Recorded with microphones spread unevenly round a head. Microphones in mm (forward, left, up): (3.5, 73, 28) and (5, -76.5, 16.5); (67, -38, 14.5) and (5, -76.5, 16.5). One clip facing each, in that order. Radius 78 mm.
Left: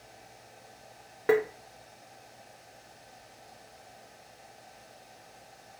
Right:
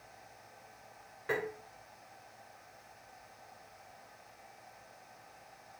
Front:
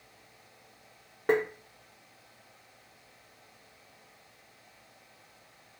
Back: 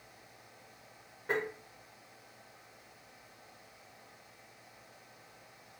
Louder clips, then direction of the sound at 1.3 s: Left 12 dB, front 8 dB; 70° left.